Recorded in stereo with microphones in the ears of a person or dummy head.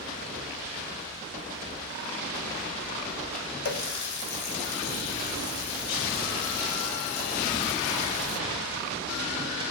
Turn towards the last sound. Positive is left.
turn(degrees=60)  # may be behind; listen again after turning